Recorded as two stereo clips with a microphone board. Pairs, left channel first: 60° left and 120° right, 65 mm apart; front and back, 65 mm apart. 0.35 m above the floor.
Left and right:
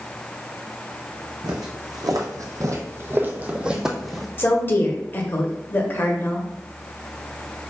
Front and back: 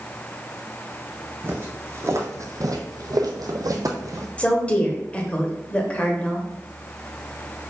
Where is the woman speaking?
55° left, 0.9 m.